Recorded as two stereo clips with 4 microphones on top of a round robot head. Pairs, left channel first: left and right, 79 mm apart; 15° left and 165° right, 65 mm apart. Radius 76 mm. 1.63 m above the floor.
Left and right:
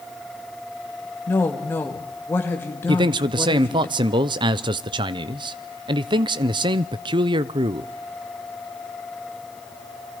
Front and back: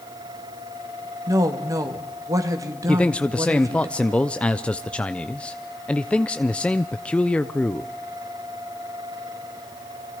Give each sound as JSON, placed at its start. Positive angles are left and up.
{"t": 1.3, "sound": "a woman speaking", "azimuth_deg": 155, "distance_m": 2.5}
{"t": 2.9, "sound": "a man speaking", "azimuth_deg": -65, "distance_m": 0.8}